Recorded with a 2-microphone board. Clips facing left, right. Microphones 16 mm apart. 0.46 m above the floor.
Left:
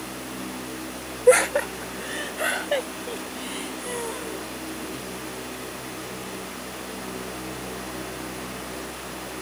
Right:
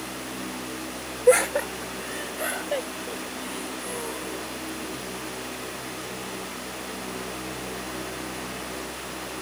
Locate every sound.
1.3 s laughter: 5° left (ahead or behind); by 5.1 s 30° left (ahead or behind)